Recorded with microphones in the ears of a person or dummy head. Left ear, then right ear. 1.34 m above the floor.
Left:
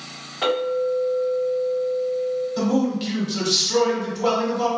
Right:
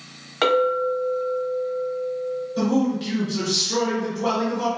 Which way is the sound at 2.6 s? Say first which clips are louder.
Even; 25° left (ahead or behind).